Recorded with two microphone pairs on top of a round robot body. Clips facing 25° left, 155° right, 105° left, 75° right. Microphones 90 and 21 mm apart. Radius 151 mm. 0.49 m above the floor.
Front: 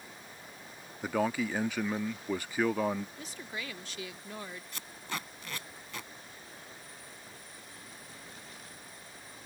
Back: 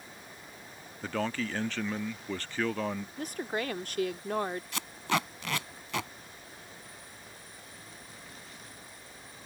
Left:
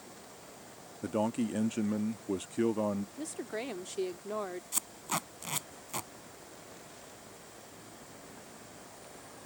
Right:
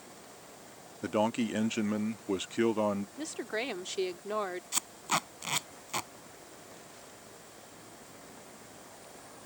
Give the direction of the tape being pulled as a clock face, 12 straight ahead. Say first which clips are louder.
Back 9 dB, right 5 dB; 5 o'clock.